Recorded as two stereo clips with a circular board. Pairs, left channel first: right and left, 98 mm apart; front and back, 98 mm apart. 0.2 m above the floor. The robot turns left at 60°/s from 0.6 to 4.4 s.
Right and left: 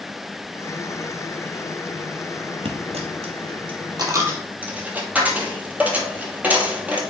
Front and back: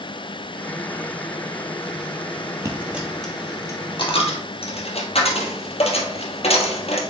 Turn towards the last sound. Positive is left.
turn(degrees=15)